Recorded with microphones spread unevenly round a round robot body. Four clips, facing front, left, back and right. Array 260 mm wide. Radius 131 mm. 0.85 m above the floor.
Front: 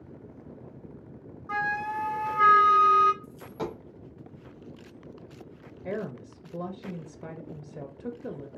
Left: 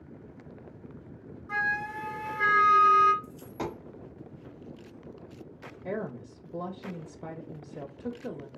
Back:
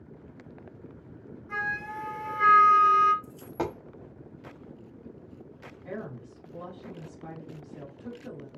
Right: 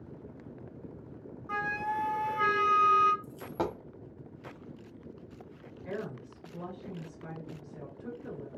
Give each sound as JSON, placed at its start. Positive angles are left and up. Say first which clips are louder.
{"t": 1.5, "sound": "a flute", "louder": "left 1 dB, front 4 dB", "azimuth_deg": -20, "distance_m": 0.9}
{"t": 3.2, "sound": "a dropped coin", "louder": "right 2 dB, back 2 dB", "azimuth_deg": -120, "distance_m": 0.8}
{"t": 5.8, "sound": "a woman speaking", "louder": "left 4 dB, front 5 dB", "azimuth_deg": 60, "distance_m": 0.7}